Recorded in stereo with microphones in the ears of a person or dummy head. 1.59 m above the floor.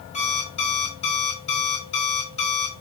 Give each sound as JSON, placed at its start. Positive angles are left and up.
{"t": 0.1, "sound": "an alarm clock", "side_deg": 35, "distance_m": 2.5}